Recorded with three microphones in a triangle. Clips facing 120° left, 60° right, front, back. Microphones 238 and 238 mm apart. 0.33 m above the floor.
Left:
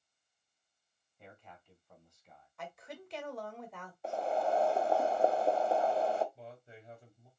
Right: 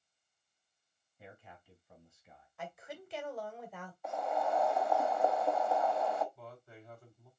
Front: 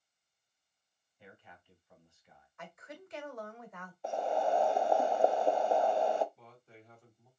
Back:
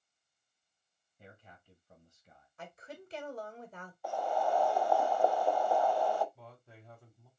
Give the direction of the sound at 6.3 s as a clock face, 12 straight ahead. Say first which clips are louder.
Left 1 dB, back 2 dB; 6 o'clock.